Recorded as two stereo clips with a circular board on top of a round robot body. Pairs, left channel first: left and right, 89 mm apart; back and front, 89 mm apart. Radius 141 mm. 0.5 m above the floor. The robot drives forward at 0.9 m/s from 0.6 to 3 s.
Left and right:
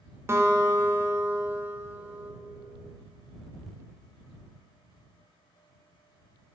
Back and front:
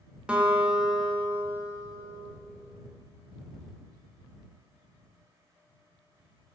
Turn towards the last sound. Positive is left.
turn(degrees=-165)